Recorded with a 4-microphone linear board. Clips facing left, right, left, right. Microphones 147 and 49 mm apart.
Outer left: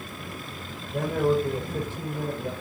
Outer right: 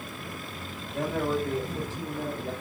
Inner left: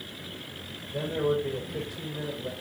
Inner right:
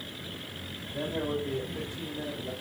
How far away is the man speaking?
About 6.5 m.